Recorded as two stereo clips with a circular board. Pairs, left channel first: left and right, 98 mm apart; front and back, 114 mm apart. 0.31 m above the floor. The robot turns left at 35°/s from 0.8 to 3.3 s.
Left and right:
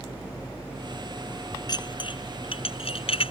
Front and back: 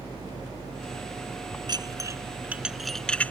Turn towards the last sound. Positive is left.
turn(degrees=75)